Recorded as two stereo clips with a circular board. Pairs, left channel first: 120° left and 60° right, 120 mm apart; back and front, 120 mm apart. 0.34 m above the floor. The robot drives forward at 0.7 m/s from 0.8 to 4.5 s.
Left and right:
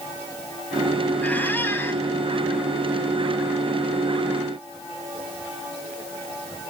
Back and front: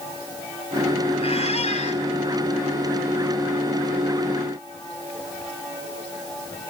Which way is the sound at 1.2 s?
165° right.